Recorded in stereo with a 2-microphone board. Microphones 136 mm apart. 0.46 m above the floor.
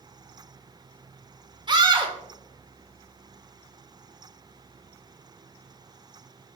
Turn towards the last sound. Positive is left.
turn(degrees=-30)  # may be behind; listen again after turning